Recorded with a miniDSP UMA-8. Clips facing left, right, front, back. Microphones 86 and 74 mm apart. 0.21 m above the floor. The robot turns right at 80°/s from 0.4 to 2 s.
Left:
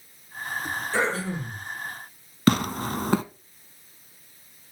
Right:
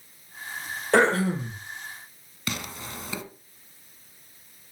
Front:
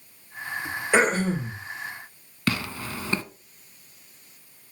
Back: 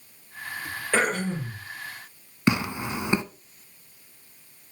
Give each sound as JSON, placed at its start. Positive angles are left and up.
{"t": 0.9, "sound": "throat clearing", "azimuth_deg": -75, "distance_m": 3.0}
{"t": 2.5, "sound": "tearing paper", "azimuth_deg": 115, "distance_m": 0.8}